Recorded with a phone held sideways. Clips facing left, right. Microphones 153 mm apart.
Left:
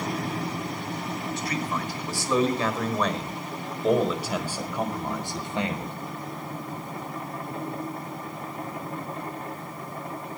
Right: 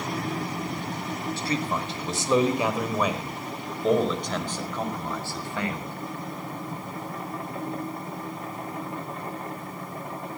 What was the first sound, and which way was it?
A man speaking, 30° right (ahead or behind).